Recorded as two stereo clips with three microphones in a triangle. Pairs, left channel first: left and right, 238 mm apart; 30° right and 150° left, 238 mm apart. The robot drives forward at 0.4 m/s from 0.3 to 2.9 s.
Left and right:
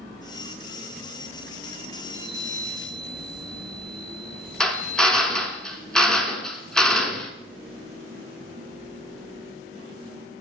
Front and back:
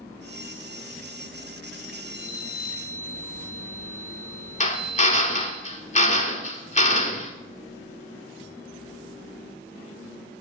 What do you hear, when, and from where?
2.0 s a chime: 70° right, 1.2 m; by 5.6 s 90° right, 1.1 m
4.6 s a drill: 5° left, 0.7 m